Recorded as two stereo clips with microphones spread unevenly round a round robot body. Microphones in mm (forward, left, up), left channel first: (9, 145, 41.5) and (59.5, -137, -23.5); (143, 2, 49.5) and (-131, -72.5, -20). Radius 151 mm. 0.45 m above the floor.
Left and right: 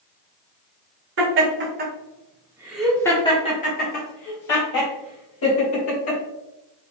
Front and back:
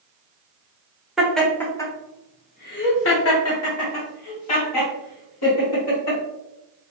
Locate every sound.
1.2 s laughter: 85° right, 1.4 m; by 6.2 s 60° left, 2.5 m